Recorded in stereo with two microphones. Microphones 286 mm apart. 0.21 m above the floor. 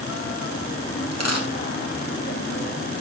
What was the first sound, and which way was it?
A dropped coin, 60° right (ahead or behind).